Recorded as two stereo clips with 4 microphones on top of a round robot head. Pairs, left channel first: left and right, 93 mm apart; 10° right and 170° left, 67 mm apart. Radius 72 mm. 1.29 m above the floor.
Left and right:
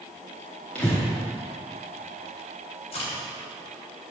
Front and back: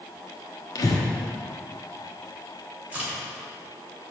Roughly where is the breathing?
Ahead.